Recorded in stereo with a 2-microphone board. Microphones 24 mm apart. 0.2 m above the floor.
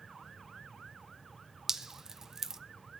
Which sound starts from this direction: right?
Dripping, at 1.7 s.